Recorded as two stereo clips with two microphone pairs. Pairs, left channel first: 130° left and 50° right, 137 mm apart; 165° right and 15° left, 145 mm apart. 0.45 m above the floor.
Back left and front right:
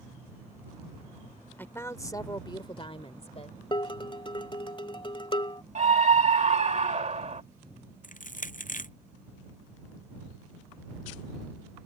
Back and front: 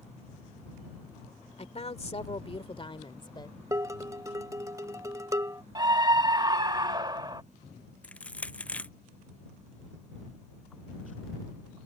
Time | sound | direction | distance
1.6 | a woman speaking | 160° right | ?
3.7 | dishes clattering | 80° left | ?
5.8 | a scream | 40° right | ?
8.0 | crushing | 115° left | ?